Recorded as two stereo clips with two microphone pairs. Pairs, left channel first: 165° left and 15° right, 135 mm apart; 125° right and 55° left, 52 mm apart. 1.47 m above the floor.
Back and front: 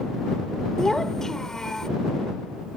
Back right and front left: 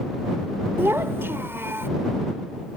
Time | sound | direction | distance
0.8 | a child speaking | 80° left | ?